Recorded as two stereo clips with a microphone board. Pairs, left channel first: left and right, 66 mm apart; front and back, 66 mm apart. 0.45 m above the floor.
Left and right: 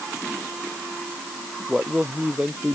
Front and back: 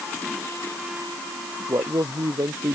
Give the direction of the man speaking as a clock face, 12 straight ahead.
6 o'clock.